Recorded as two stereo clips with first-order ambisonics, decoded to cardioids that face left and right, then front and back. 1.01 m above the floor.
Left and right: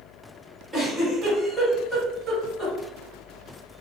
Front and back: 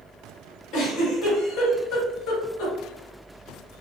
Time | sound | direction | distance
0.7 | a giggle | 10° right | 1.5 m